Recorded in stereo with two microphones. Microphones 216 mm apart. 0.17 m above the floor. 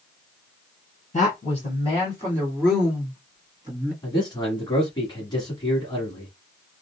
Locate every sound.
1.1 s a woman speaking: 35° left (ahead or behind), 1.8 m; by 3.9 s 25° right (ahead or behind), 1.6 m
4.0 s a man speaking: 20° left (ahead or behind), 1.2 m